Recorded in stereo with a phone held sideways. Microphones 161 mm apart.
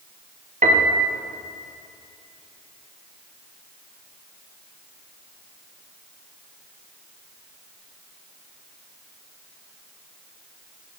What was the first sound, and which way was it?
A piano, 50° right (ahead or behind).